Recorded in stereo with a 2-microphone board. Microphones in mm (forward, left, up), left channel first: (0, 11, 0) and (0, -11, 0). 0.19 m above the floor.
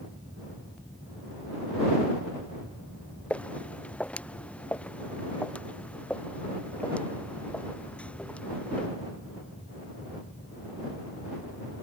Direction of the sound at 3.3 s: 75° left (ahead or behind).